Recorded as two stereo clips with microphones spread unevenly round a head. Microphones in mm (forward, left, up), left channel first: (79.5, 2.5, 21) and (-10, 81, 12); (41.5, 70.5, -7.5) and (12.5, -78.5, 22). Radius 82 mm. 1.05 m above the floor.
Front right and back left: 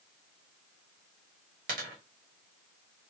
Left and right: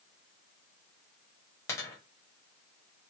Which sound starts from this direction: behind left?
A dropped coin, at 1.7 s.